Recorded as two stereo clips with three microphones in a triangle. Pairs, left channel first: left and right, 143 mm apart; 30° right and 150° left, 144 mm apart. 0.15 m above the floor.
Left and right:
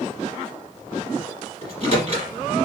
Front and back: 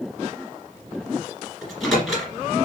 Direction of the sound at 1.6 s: 120° right.